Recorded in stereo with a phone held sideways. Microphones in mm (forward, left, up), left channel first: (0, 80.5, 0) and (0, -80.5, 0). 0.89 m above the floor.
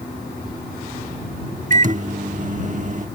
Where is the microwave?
50° right (ahead or behind).